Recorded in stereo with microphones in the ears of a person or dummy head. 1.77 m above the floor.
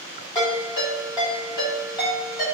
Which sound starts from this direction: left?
A ringtone, at 0.3 s.